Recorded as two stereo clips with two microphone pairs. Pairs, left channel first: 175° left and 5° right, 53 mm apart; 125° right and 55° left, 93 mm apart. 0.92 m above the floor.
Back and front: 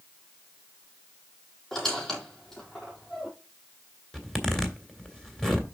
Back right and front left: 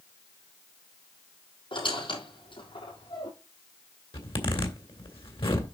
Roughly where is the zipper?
Right.